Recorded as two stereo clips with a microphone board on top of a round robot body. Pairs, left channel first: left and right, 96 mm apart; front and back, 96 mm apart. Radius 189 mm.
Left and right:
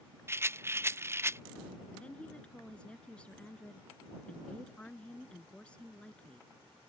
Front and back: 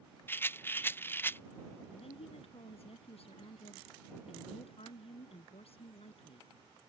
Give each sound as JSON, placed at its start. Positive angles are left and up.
{"t": 0.3, "sound": "a rattle", "azimuth_deg": -50}
{"t": 1.9, "sound": "a woman speaking", "azimuth_deg": 10}